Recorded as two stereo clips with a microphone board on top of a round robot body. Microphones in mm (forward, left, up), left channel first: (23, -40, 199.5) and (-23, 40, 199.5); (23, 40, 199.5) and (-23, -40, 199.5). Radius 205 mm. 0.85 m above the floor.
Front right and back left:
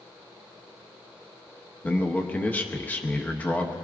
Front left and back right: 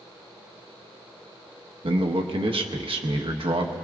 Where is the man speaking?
130° right, 1.3 m.